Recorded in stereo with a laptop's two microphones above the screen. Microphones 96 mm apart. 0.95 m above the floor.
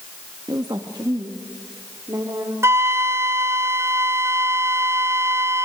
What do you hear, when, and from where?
0.5 s a woman speaking: 50° right (ahead or behind), 1.4 m; by 2.5 s 40° right (ahead or behind), 3 m
2.6 s a flute: 30° right (ahead or behind), 0.5 m